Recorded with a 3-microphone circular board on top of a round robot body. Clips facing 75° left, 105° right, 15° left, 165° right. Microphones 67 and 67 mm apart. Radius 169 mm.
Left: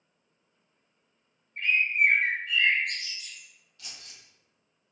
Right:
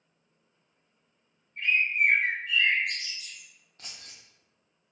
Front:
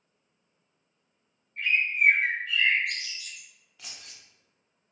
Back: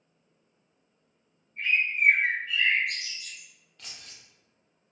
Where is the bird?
30° left, 1.1 m.